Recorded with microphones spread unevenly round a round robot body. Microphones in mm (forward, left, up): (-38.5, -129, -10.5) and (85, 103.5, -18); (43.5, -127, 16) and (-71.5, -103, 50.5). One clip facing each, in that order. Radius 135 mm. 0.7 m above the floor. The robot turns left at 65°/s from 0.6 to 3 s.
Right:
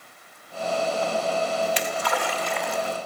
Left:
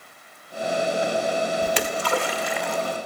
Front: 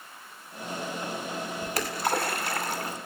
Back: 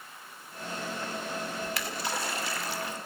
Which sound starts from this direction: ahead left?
A splash, at 1.6 s.